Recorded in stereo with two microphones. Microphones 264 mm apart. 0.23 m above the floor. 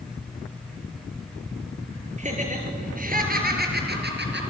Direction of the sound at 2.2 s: 25° right (ahead or behind).